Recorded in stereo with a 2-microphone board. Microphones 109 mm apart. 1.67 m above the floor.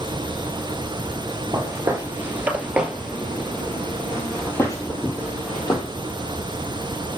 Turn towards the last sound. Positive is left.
turn(degrees=45)  # may be behind; listen again after turning